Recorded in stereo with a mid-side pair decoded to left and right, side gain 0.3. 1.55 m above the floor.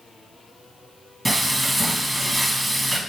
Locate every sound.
1.2 s frying: 25° right, 1.5 m